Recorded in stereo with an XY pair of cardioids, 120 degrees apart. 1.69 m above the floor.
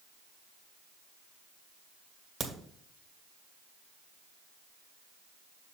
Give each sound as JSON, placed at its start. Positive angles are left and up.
{"t": 2.4, "sound": "a crack", "azimuth_deg": -40, "distance_m": 1.8}